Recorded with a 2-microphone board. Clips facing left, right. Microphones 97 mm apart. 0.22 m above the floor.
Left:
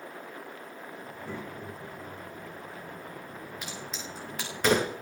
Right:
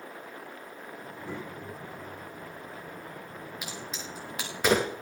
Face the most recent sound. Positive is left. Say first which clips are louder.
# even
turn(degrees=-5)  # may be behind; listen again after turning